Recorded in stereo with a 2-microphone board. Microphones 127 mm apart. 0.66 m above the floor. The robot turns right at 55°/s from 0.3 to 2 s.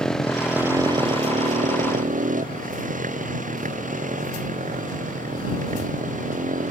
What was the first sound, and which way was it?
A motorcycle, 5° left (ahead or behind).